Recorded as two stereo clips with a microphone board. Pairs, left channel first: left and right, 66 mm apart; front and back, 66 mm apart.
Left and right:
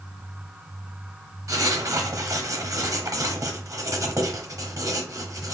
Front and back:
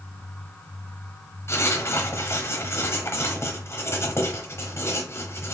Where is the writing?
55° right, 0.8 m.